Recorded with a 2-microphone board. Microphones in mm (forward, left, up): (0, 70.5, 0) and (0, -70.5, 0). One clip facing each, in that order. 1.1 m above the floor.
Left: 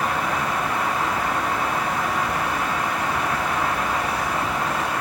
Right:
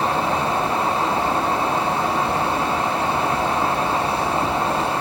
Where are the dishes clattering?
I don't hear dishes clattering.